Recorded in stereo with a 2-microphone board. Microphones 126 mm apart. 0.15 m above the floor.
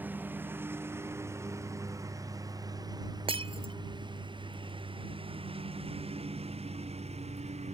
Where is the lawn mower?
15° right (ahead or behind); by 7.7 s 60° right (ahead or behind).